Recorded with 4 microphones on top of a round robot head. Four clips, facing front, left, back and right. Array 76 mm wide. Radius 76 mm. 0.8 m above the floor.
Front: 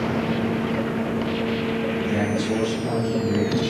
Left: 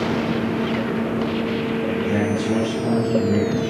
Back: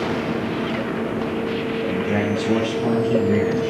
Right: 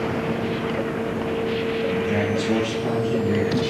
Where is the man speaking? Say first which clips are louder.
Left 2 dB, back 4 dB; straight behind, 7.5 m.